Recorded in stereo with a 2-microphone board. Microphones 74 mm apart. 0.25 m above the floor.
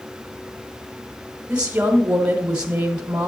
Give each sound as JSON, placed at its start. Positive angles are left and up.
{"t": 1.5, "sound": "a woman speaking", "side_deg": -20, "distance_m": 1.0}